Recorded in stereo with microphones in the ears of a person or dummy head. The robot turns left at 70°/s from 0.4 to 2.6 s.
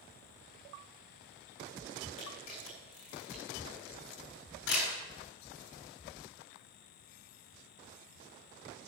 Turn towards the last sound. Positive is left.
turn(degrees=70)  # may be behind; listen again after turning